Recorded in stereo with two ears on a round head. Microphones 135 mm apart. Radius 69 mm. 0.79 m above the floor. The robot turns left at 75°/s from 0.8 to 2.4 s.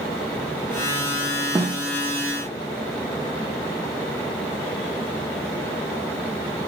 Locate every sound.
1.6 s a snare drum: 20° right (ahead or behind), 0.7 m; by 1.8 s 40° right (ahead or behind), 0.7 m